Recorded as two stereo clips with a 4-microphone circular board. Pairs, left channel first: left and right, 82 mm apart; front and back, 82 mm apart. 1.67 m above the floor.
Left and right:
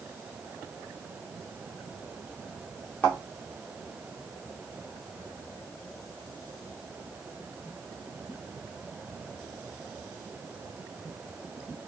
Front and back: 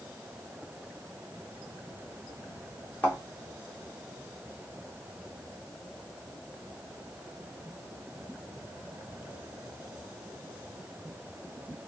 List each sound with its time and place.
3.0 s a thud: 40° left, 1.4 m